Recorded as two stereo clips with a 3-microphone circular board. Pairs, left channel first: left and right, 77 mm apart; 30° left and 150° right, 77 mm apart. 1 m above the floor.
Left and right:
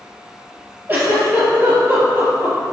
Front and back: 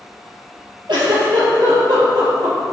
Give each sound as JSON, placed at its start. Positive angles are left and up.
{"t": 0.9, "sound": "a giggle", "azimuth_deg": -150, "distance_m": 4.0}